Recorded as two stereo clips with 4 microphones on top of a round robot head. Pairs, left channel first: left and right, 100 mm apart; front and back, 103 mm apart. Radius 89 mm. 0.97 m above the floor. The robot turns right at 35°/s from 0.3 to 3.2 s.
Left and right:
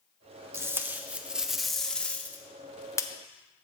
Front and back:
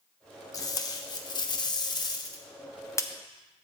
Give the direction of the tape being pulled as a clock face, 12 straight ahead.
1 o'clock.